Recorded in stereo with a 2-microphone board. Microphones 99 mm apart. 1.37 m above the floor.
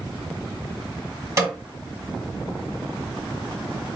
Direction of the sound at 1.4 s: 30° right (ahead or behind).